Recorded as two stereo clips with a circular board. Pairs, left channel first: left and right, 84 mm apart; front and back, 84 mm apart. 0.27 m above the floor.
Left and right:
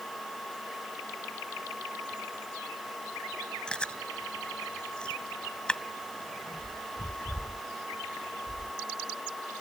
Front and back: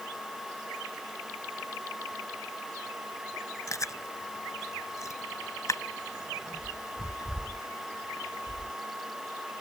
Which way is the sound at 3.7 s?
15° left.